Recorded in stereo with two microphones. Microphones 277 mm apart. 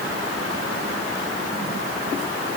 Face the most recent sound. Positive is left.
No sound to turn to.